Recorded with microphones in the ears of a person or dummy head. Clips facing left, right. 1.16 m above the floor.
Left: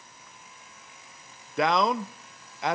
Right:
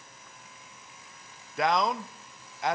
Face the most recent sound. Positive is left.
turn(degrees=65)  # may be behind; listen again after turning